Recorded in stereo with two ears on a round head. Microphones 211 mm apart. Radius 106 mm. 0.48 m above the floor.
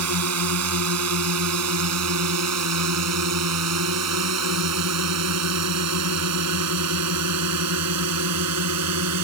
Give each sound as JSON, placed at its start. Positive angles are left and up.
{"t": 0.0, "sound": "a drone", "side_deg": -75}